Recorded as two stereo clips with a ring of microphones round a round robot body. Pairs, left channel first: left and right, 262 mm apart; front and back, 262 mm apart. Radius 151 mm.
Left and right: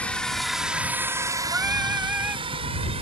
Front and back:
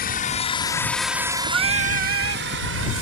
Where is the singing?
175° right.